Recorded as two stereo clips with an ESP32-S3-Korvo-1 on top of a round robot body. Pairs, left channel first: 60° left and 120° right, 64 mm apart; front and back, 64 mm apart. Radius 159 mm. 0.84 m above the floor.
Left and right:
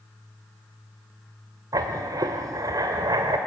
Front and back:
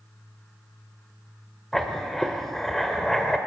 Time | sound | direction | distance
1.7 | writing | 85° right | 1.7 m